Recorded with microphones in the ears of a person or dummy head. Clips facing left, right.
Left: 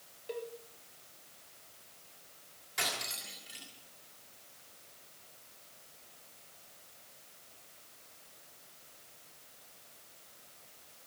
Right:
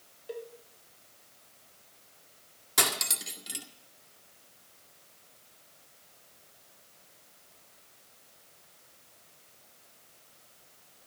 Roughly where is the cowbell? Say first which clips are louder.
Even; centre.